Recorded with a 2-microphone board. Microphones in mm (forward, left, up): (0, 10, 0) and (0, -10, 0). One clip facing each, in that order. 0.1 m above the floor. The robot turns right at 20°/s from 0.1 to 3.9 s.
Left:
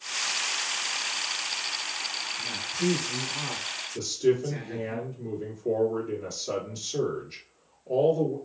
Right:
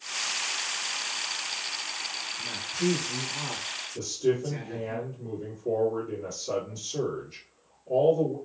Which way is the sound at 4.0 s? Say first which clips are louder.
Left 2 dB; 45° left (ahead or behind).